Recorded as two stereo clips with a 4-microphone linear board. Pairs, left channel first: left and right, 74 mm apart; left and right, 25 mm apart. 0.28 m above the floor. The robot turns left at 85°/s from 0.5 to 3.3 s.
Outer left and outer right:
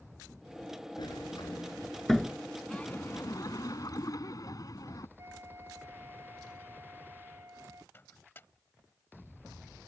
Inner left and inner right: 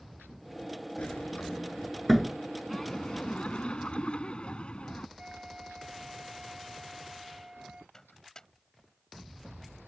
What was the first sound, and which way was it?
A sliding door, 70° left (ahead or behind).